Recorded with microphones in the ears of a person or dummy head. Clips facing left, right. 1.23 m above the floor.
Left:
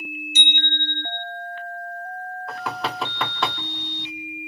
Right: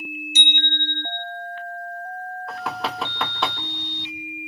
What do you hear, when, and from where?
0.3 s a bicycle bell: 70° right (ahead or behind), 2.5 m
2.5 s knocking: 5° right (ahead or behind), 1.9 m